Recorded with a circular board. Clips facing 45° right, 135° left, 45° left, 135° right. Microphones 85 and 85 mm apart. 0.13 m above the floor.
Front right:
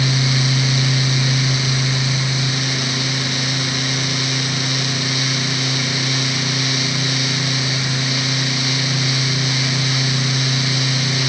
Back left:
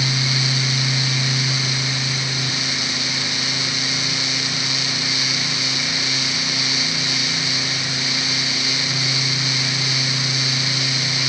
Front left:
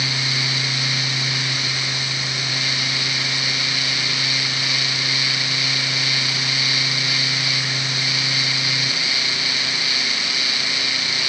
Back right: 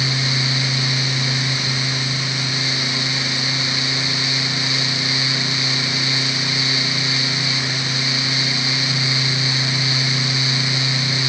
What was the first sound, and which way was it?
Only background noise.